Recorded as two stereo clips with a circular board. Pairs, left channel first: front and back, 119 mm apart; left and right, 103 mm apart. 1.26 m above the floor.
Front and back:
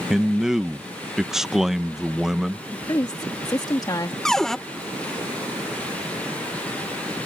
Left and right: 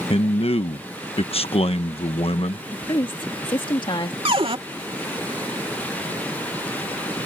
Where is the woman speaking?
55° left.